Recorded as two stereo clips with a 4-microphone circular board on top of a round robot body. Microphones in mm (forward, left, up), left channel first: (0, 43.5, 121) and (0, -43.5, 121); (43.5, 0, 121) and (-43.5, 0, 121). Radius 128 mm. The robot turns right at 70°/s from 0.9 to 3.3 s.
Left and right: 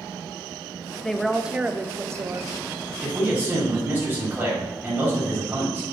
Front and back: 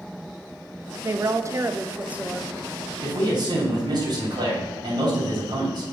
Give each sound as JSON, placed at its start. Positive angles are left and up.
{"t": 1.0, "sound": "a woman speaking", "azimuth_deg": 165, "distance_m": 0.6}
{"t": 3.0, "sound": "a man speaking", "azimuth_deg": 180, "distance_m": 2.0}